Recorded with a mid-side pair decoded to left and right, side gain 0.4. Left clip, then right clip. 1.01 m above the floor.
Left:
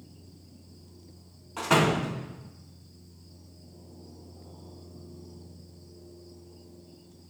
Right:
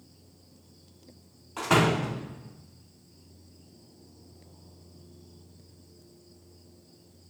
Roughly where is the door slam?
Ahead.